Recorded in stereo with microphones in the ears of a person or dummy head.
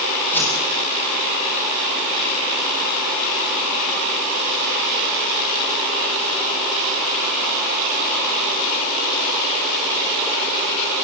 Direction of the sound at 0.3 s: 10° left (ahead or behind).